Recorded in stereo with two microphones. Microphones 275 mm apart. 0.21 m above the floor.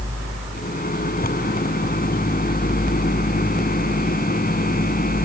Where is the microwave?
35° left (ahead or behind).